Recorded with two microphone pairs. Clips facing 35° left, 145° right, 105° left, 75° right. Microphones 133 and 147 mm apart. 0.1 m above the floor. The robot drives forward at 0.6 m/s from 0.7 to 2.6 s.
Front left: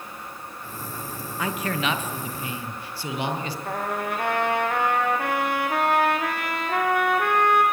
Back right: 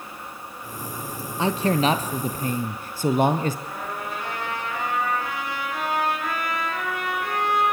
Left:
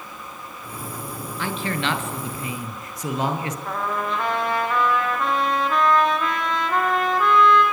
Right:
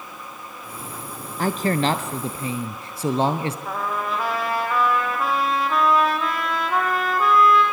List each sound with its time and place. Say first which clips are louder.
1.4 s a man speaking: back right 6 dB, right 6 dB; 95° right, 1.8 m; by 3.5 s 125° right, 1.9 m
3.6 s a trumpet: front left 4 dB, left 1 dB; 10° left, 4 m